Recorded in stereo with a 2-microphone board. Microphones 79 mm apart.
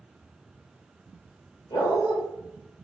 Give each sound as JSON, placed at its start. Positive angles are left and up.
{"t": 1.7, "sound": "a dog barking", "side_deg": 75, "distance_m": 1.5}